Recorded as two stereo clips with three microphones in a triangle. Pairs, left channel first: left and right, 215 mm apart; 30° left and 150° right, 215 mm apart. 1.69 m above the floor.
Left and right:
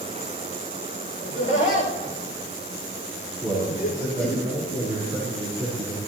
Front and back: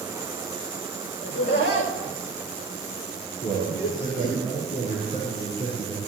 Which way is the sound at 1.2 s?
35° left.